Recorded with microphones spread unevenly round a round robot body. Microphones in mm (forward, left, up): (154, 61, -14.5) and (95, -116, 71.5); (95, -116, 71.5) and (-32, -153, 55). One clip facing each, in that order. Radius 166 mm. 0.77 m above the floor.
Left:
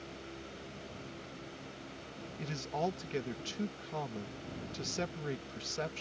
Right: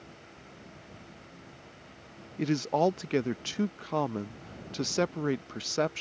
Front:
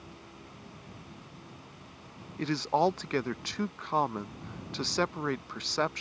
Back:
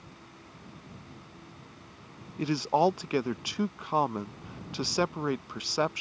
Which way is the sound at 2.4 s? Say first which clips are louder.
Right 11 dB, back 2 dB; 100° right.